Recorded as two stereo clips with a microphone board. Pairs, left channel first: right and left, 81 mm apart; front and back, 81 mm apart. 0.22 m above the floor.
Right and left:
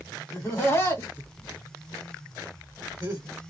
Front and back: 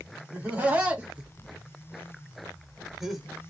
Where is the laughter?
120° right, 1.8 m; by 3.3 s 95° left, 1.4 m.